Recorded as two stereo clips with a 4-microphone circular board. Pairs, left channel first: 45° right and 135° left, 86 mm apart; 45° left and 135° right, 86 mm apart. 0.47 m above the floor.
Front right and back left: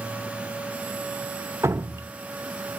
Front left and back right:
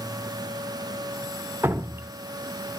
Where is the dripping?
175° left, 0.7 m.